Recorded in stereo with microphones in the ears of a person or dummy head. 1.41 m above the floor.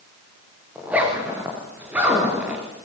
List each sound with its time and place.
0.8 s a zipper: 10° right (ahead or behind), 6 m